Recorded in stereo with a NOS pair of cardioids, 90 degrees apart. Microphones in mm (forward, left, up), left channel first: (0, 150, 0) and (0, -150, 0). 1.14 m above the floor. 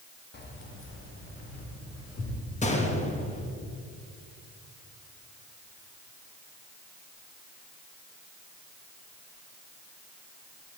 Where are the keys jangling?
35° left, 1.6 m; by 2.4 s 55° left, 3 m.